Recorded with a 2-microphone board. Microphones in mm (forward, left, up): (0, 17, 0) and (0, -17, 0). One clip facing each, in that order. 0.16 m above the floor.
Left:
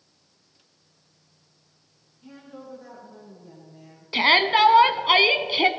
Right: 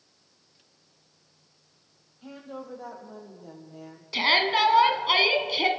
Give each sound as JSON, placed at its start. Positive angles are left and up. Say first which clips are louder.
{"t": 2.2, "sound": "a woman speaking", "louder": "right 3 dB", "side_deg": -75, "distance_m": 6.0}
{"t": 4.1, "sound": "a shout", "louder": "left 4 dB", "side_deg": 20, "distance_m": 1.0}